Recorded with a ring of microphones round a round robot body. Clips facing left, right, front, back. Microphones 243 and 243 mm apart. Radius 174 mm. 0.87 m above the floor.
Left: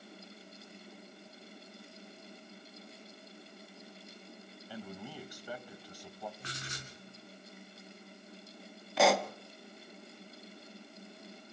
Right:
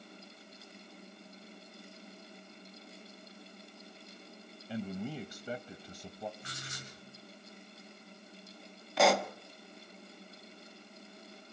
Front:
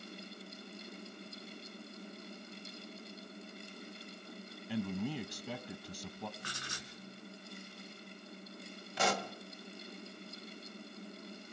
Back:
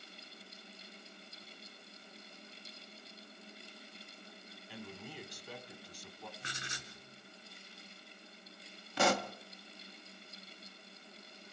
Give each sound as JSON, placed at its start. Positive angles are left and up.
{"t": 4.7, "sound": "a man speaking", "azimuth_deg": -25, "distance_m": 0.7}
{"t": 6.4, "sound": "writing", "azimuth_deg": 110, "distance_m": 6.0}
{"t": 9.0, "sound": "a pop", "azimuth_deg": 180, "distance_m": 1.0}